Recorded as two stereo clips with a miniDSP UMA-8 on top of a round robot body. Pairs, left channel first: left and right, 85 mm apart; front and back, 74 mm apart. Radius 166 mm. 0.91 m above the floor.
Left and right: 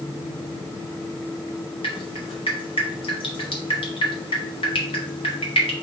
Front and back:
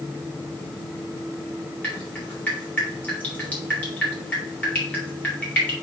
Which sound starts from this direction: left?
Dripping, at 1.8 s.